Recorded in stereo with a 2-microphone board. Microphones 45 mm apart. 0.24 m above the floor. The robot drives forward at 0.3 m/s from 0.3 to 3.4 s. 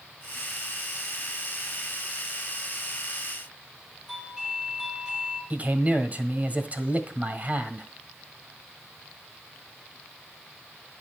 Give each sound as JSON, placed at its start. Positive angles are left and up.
{"t": 4.1, "sound": "a doorbell", "side_deg": -5, "distance_m": 8.5}
{"t": 5.5, "sound": "a man speaking", "side_deg": -35, "distance_m": 1.8}